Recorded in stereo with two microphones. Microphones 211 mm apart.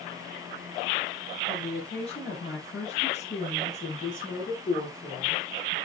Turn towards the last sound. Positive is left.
turn(degrees=65)  # may be behind; listen again after turning